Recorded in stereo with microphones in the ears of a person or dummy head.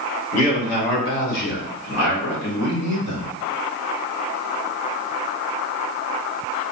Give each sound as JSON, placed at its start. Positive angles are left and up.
{"t": 0.3, "sound": "a man speaking", "side_deg": 40, "distance_m": 2.0}